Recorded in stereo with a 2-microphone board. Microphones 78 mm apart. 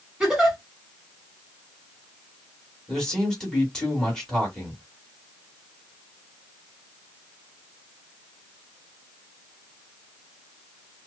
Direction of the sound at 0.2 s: 5° right (ahead or behind).